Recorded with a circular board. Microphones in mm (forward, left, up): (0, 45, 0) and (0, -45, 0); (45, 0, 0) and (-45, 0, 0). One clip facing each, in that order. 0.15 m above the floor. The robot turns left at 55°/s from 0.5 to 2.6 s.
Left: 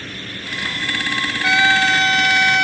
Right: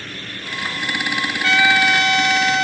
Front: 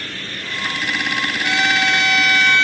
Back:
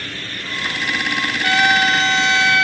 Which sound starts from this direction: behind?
A trumpet, at 1.4 s.